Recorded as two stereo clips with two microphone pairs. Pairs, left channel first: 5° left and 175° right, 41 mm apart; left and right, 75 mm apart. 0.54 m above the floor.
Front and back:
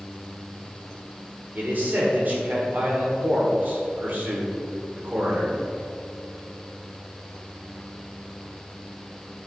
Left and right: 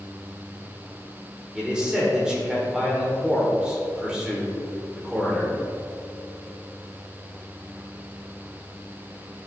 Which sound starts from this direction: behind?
A man speaking, at 1.6 s.